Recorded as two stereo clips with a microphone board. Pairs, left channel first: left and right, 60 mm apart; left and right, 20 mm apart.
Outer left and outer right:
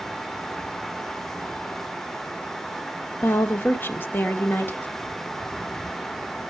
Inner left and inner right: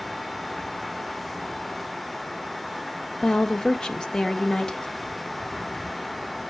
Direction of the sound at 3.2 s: 35° left (ahead or behind).